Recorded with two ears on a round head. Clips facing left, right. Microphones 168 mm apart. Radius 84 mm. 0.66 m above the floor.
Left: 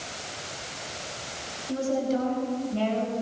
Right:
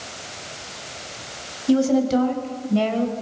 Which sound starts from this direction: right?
A woman speaking, at 1.7 s.